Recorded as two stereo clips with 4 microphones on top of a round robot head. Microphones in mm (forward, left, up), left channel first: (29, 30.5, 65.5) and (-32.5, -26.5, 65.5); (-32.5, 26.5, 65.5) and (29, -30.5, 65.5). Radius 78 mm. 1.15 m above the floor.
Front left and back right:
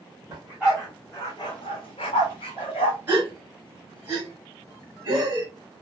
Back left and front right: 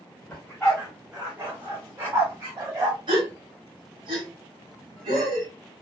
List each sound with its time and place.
0.3 s a dog barking: 170° right, 0.8 m; by 3.0 s 20° left, 1.5 m
3.1 s a gasp: 70° right, 1.3 m